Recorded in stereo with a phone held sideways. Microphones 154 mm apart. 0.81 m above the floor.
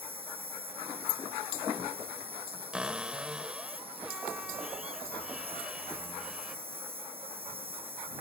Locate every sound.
0.0 s an insect: 40° right (ahead or behind)
2.7 s a cupboard door: 5° right (ahead or behind)